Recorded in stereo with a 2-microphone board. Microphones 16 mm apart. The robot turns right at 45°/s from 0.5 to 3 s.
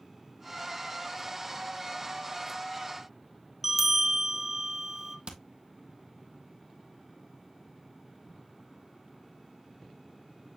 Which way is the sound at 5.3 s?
65° right (ahead or behind).